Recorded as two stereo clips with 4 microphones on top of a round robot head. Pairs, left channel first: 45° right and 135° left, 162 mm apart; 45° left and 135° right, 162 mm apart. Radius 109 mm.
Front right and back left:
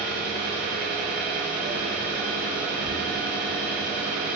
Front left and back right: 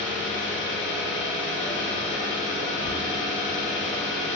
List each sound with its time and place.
0.0 s an engine running: 55° left, 0.7 m